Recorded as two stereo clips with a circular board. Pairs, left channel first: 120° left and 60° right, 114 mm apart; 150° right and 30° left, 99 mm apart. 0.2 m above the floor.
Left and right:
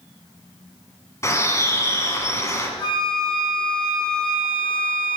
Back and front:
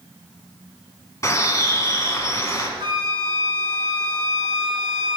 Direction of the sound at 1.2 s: 170° left.